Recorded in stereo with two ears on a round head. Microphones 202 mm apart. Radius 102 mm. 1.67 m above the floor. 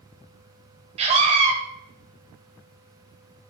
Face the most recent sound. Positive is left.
turn(degrees=-25)  # may be behind; listen again after turning